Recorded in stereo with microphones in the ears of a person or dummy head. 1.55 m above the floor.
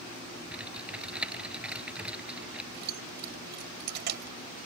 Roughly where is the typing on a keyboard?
Centre.